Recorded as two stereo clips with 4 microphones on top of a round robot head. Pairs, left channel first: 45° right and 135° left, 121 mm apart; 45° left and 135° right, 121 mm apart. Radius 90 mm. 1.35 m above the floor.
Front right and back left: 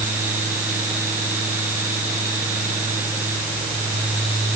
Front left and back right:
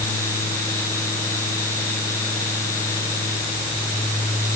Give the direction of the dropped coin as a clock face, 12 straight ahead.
No dropped coin in this recording.